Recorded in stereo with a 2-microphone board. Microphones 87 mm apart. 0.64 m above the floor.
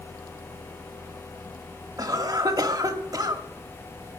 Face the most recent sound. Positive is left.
turn(degrees=-45)  # may be behind; listen again after turning